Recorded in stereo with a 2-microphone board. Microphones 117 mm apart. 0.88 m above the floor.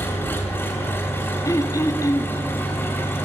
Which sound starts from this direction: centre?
An engine running, at 0.0 s.